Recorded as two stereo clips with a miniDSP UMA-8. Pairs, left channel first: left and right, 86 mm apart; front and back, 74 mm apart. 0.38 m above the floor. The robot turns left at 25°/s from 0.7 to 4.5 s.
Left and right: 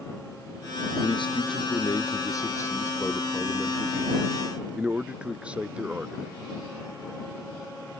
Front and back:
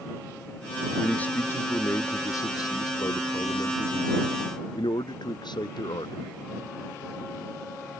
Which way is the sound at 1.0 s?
75° left.